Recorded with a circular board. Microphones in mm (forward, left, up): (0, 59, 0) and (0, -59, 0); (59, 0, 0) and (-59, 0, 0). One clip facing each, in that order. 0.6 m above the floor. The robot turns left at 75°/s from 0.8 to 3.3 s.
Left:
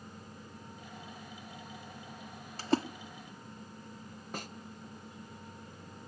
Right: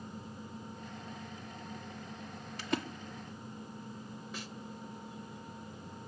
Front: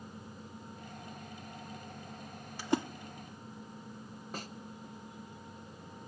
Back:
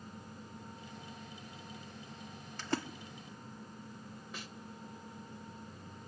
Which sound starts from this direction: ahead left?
A snare drum, at 4.3 s.